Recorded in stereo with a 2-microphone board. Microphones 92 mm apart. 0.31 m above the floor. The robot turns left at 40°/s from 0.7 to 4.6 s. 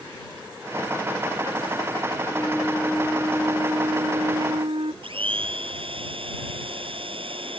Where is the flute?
20° left; by 4.9 s 70° right.